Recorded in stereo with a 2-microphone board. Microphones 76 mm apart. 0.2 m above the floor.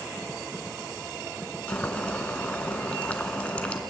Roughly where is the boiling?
Centre.